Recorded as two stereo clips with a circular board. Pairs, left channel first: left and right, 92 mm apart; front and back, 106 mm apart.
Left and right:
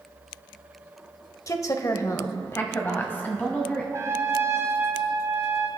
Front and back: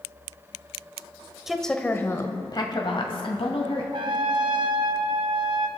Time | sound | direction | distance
1.5 | a woman speaking | 95° left | 1.0 m
3.9 | a trumpet | 145° right | 1.2 m